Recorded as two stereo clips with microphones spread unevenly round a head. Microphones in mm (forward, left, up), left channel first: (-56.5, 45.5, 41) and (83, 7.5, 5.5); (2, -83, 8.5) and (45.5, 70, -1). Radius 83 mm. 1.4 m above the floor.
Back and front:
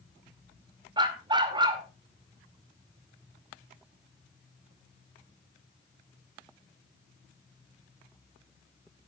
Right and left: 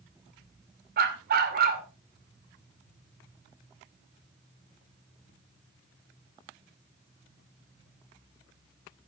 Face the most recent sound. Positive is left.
turn(degrees=50)